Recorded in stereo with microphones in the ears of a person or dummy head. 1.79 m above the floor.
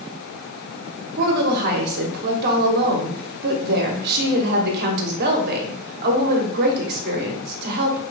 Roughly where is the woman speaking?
Right.